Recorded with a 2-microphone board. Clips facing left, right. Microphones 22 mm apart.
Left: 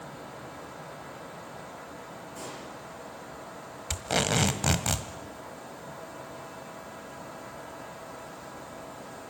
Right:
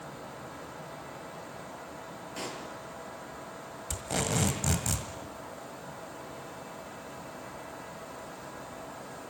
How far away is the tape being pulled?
About 1.7 m.